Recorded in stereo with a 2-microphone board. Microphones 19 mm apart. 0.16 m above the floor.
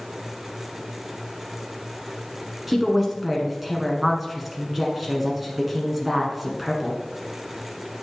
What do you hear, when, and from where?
2.7 s a woman speaking: 10° right (ahead or behind), 1.6 m